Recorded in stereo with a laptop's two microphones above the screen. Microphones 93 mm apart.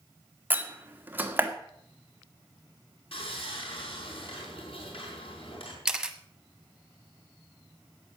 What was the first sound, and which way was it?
A door slam, 20° right (ahead or behind).